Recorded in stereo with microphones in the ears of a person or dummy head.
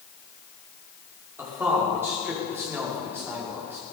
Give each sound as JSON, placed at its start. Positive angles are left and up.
{"t": 1.4, "sound": "a man speaking", "side_deg": -10, "distance_m": 5.5}